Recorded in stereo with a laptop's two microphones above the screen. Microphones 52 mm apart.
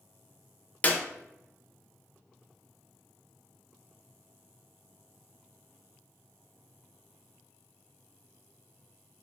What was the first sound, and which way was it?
A clap, 30° left (ahead or behind).